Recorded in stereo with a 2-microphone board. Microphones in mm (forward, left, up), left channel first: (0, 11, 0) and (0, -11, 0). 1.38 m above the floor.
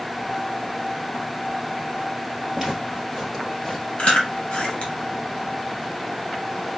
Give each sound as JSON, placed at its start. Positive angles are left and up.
{"t": 2.5, "sound": "footsteps", "side_deg": -25, "distance_m": 2.0}
{"t": 4.0, "sound": "chewing", "side_deg": 55, "distance_m": 1.1}